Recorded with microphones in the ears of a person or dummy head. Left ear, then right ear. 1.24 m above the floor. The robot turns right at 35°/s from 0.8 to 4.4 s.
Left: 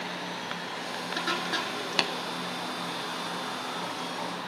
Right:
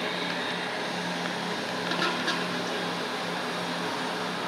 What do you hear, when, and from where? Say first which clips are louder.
2.0 s tapping: left 2 dB; 65° left (ahead or behind), 0.7 m